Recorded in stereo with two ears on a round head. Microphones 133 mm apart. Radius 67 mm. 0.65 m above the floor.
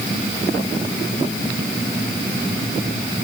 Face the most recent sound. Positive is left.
No sound to turn to.